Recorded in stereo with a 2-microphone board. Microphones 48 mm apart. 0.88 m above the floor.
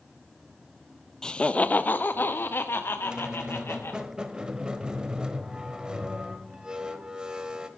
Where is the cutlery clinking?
I don't hear cutlery clinking.